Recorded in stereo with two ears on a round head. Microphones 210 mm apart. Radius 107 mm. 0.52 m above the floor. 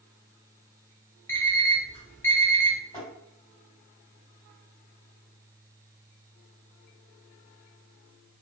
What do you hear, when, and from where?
1.3 s an alarm clock: 10° left (ahead or behind), 0.6 m
2.9 s tapping: 15° left (ahead or behind), 1.7 m